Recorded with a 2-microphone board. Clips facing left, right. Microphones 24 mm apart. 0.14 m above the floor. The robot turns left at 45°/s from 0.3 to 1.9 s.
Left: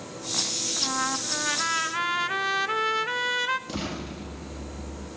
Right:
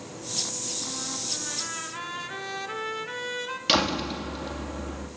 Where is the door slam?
60° right (ahead or behind), 3 m.